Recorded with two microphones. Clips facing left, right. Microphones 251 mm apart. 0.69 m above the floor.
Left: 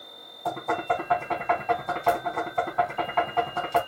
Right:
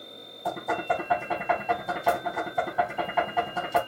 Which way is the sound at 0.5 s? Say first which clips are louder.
Left 1 dB; 5° right (ahead or behind).